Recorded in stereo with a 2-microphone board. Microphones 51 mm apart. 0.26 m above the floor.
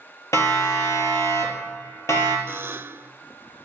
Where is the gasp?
No gasp in this recording.